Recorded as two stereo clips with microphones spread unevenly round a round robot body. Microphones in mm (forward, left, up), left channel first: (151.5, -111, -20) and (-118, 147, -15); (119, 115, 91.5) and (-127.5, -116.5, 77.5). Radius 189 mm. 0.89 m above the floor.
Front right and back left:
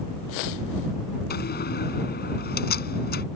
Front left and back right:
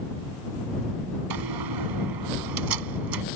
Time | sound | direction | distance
1.3 | a door slam | 110° right | ?